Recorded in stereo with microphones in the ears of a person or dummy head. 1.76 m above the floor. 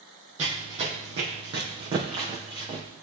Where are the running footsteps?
35° right (ahead or behind), 3.5 m; by 2.8 s 25° right (ahead or behind), 4.5 m.